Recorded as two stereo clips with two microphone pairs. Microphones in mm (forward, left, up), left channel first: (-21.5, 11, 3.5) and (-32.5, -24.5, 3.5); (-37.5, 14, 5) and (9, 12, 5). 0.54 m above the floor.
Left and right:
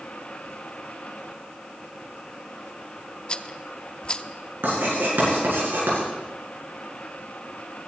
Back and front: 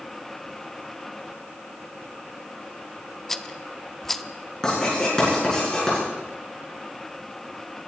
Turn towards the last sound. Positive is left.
turn(degrees=-105)